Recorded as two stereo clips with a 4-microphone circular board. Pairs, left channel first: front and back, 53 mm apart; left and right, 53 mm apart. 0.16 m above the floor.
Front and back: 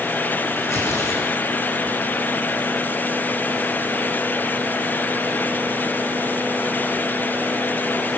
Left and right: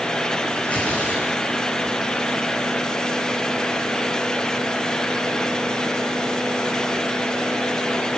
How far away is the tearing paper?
About 10 m.